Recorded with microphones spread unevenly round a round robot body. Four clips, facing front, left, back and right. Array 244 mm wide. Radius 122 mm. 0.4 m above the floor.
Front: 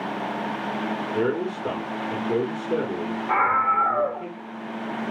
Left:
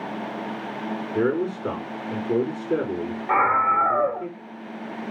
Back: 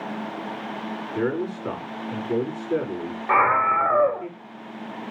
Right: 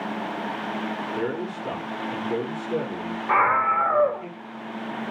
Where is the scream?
155° left, 0.9 m.